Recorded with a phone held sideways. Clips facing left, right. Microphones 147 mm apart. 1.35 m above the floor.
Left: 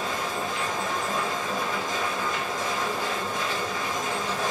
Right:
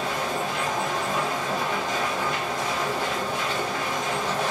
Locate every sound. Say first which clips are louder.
0.0 s a machine running: right 2 dB; 75° right (ahead or behind), 0.9 m